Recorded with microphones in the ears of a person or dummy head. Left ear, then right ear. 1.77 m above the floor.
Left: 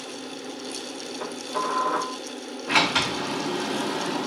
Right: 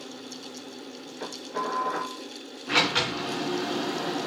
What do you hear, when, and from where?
1.2 s dishes clattering: 20° left (ahead or behind), 4.5 m
2.7 s a sliding door: 15° left (ahead or behind), 4 m